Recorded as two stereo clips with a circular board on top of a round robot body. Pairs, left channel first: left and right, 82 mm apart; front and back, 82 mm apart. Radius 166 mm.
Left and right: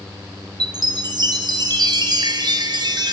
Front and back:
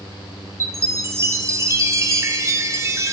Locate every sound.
0.6 s a chime: 125° right, 2 m